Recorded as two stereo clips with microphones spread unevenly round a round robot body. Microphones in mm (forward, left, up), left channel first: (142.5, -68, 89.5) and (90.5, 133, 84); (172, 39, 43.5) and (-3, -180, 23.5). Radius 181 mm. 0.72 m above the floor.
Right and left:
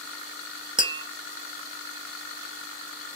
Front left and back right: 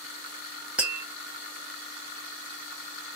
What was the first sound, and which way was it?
Tapping, 155° left.